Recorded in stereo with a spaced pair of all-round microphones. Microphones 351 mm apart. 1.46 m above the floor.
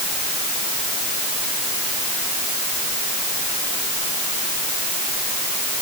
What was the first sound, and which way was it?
Only background noise.